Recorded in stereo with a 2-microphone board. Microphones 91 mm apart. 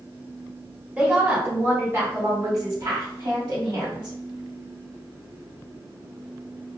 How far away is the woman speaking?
About 1.4 m.